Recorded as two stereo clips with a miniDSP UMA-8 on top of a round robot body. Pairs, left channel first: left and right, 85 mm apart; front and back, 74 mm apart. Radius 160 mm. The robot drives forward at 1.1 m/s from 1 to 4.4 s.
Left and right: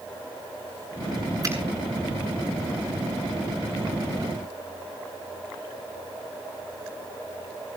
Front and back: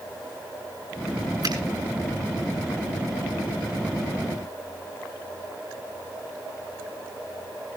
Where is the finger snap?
145° right, 7.5 m.